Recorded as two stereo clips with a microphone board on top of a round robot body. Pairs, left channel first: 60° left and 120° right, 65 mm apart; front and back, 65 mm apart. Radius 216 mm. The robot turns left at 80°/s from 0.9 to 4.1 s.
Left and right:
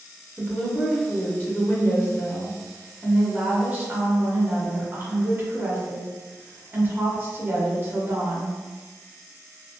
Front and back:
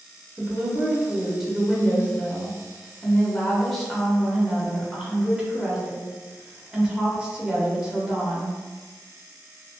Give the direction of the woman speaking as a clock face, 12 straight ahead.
7 o'clock.